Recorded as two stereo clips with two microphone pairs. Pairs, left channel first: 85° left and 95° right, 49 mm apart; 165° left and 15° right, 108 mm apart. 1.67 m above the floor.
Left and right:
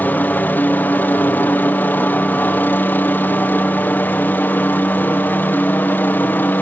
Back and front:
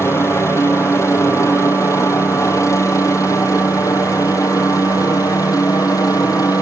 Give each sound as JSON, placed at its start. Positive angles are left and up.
{"t": 0.0, "sound": "a helicopter", "azimuth_deg": 110}